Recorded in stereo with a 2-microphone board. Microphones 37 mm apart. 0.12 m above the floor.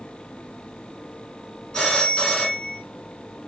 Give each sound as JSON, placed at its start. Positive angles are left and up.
{"t": 1.7, "sound": "a phone ringing", "side_deg": 20, "distance_m": 0.8}